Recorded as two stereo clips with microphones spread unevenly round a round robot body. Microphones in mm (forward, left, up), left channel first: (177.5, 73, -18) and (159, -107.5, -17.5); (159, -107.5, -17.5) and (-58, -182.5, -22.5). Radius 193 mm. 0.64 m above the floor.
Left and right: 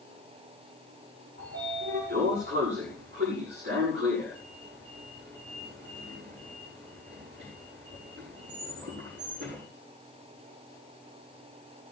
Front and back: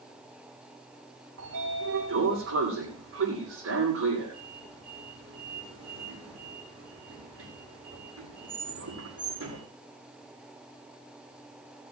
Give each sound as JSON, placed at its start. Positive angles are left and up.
{"t": 1.4, "sound": "a sliding door", "azimuth_deg": -160, "distance_m": 8.0}